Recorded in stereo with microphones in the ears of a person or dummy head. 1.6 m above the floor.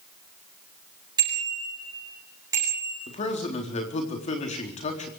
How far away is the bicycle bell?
About 8 m.